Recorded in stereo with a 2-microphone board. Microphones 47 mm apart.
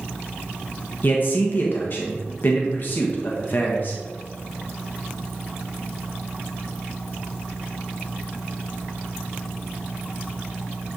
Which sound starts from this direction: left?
A man speaking, at 1.0 s.